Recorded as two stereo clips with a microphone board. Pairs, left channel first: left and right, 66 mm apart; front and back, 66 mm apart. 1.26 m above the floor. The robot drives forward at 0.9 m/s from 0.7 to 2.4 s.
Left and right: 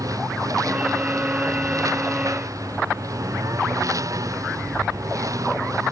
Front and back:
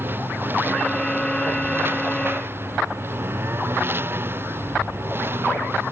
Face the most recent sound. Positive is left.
turn(degrees=-125)